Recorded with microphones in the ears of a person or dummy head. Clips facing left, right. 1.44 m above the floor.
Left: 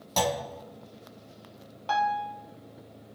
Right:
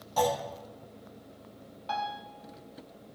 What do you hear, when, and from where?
0.2 s a clunk: 85° left, 1.4 m
1.9 s a piano: 60° left (ahead or behind), 1.0 m